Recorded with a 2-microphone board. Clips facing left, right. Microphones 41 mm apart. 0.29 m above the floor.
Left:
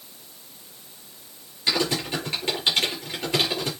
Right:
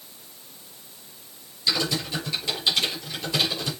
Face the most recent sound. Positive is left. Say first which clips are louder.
# left 1 dB
turn(degrees=40)  # may be behind; listen again after turning